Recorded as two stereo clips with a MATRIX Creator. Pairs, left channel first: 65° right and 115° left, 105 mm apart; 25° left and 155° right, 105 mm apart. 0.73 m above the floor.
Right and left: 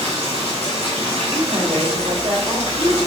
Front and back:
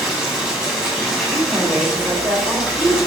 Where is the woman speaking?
135° left, 2 m.